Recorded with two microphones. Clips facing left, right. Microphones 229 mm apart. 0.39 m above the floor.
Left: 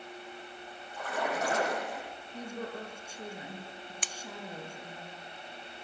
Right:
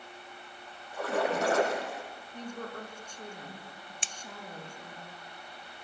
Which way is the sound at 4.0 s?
25° right (ahead or behind).